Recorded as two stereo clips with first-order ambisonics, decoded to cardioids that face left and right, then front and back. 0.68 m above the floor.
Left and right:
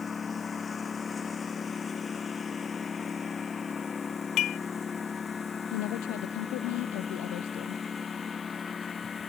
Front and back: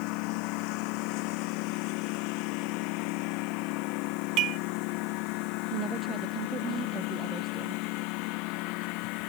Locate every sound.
0.0 s a lawn mower: 20° left
4.4 s dishes clattering: 135° left
5.7 s a woman speaking: 110° left